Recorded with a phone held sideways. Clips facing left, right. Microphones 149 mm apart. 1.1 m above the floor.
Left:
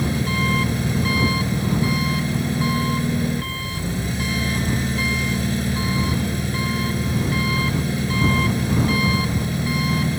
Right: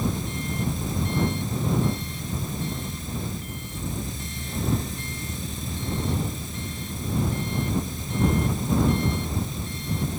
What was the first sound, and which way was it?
An engine running, 70° left (ahead or behind).